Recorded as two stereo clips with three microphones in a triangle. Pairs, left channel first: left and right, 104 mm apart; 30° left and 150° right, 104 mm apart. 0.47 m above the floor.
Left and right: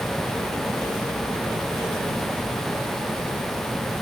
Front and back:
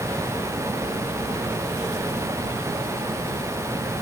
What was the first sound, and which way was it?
Only background noise.